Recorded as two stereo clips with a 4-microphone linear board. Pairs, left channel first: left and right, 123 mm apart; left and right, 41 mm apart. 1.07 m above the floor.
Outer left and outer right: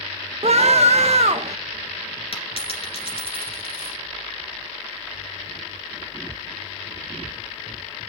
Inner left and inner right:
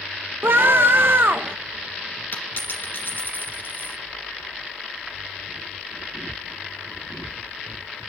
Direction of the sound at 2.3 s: 50° left (ahead or behind).